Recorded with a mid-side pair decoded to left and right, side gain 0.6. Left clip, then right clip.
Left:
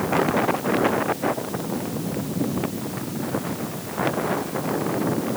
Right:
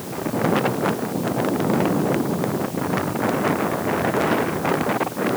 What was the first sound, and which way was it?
Only background noise.